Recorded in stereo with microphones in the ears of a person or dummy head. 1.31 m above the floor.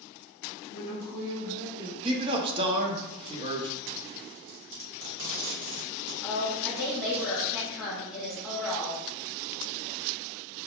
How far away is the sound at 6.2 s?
About 1.0 m.